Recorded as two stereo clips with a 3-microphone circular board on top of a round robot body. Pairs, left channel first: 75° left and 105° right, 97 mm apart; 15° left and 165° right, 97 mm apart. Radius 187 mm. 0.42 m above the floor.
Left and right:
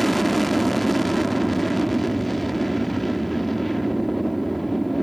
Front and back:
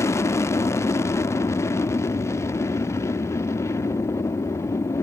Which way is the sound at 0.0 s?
15° right.